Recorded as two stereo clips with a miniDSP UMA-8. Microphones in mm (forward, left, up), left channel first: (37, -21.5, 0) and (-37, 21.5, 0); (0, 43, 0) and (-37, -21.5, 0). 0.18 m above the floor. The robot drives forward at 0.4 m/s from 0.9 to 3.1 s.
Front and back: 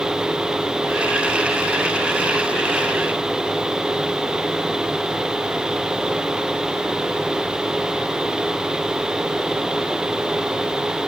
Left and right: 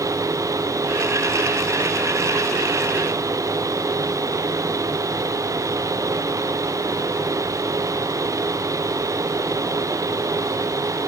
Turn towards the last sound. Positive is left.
No sound to turn to.